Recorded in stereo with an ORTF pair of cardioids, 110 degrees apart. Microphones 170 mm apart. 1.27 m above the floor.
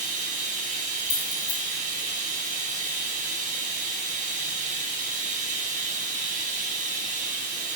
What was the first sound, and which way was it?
Running water, 50° right.